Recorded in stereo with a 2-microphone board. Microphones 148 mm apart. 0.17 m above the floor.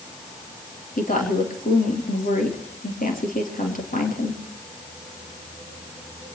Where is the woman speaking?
70° left (ahead or behind), 4.5 m.